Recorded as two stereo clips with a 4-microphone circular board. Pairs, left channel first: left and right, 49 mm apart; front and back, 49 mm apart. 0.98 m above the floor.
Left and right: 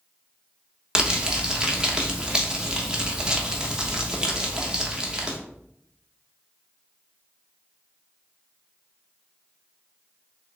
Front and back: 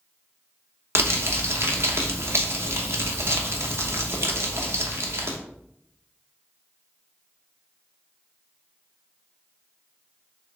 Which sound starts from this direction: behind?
Crumpling, at 0.9 s.